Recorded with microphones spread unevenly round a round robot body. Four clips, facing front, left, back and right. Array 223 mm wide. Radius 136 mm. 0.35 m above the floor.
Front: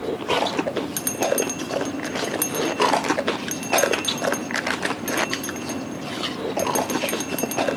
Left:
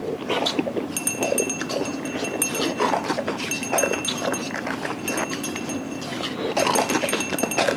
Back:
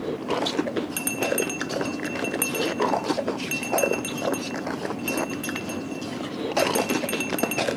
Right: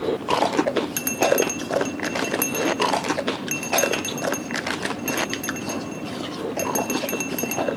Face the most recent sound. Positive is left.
turn(degrees=-145)